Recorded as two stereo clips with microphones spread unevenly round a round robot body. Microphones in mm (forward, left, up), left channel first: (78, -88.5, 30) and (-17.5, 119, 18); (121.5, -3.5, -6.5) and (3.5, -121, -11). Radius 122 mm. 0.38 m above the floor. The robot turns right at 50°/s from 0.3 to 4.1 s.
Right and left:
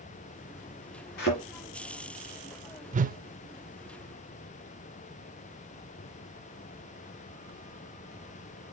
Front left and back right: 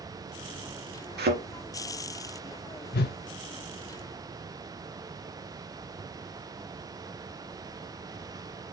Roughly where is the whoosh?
Ahead left.